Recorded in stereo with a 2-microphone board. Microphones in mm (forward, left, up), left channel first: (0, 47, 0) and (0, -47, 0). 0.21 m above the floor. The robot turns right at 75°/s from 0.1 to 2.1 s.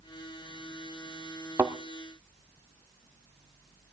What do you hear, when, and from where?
1.6 s a thud: 30° right (ahead or behind), 1.1 m; by 1.8 s 15° right (ahead or behind), 1.1 m